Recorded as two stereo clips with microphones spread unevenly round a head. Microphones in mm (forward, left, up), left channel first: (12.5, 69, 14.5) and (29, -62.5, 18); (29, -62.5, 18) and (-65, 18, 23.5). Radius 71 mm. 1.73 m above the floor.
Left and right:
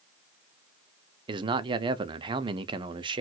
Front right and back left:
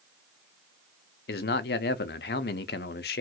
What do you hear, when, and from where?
1.3 s a man speaking: 25° right, 0.6 m